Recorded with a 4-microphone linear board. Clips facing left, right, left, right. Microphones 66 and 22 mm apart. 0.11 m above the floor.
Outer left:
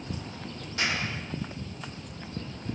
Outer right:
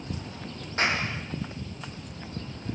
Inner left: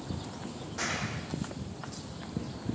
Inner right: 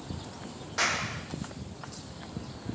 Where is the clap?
40° right (ahead or behind), 5 m.